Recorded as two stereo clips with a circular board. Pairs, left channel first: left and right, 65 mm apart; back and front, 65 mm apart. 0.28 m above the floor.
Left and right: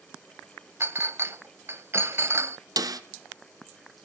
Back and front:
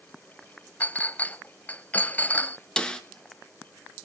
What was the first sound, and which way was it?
A clink, 125° right.